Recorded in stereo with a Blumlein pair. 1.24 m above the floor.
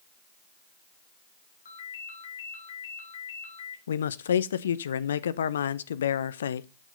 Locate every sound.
1.6 s a ringtone: 65° left, 3 m
3.9 s a man speaking: 65° left, 0.7 m